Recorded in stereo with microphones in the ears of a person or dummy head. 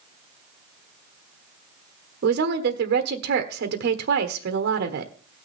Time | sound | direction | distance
2.2 | a woman speaking | 65° right (ahead or behind) | 1.2 m